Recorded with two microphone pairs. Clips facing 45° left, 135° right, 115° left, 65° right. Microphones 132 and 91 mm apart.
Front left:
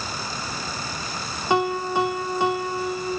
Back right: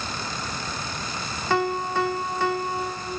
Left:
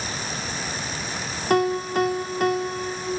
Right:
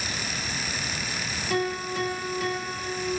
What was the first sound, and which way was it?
A piano, 120° left.